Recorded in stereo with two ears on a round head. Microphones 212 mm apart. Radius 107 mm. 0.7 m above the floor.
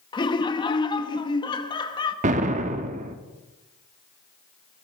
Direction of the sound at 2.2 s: 35° right (ahead or behind).